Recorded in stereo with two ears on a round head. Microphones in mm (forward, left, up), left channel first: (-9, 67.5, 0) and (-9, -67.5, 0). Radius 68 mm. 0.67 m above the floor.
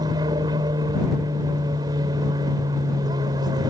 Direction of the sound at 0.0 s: 25° right (ahead or behind).